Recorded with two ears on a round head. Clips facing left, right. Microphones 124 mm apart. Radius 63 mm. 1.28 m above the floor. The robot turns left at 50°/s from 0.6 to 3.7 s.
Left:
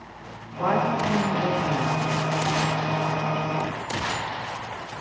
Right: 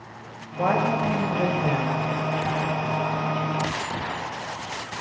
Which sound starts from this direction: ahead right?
A woman speaking, at 0.6 s.